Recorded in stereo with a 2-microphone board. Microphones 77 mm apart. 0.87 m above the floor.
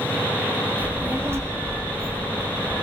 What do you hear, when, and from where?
0.8 s a child speaking: 20° right (ahead or behind), 0.5 m; by 2.9 s 30° right (ahead or behind), 1.0 m